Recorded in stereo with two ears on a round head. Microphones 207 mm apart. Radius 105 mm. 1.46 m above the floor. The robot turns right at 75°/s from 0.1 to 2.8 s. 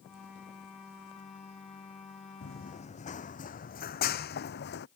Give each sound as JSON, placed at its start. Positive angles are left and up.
{"t": 2.4, "sound": "running footsteps", "side_deg": 50}